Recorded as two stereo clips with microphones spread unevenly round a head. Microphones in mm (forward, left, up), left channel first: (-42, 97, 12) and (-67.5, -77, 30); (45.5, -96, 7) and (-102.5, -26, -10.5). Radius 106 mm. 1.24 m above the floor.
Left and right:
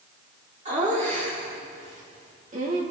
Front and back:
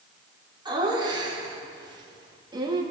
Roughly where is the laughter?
Behind right.